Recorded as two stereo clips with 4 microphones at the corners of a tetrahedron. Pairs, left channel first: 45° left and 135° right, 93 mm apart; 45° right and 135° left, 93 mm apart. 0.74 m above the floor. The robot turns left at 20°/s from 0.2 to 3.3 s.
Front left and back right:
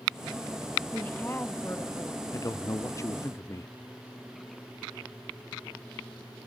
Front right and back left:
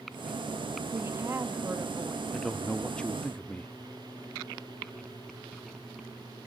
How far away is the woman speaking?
About 1.0 m.